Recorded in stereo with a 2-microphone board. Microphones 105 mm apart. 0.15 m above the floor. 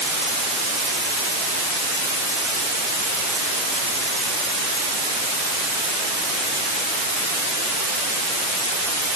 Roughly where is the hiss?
No hiss in this recording.